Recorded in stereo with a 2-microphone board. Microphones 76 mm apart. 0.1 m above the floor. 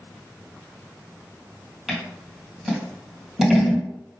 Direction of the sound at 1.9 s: 10° right (ahead or behind).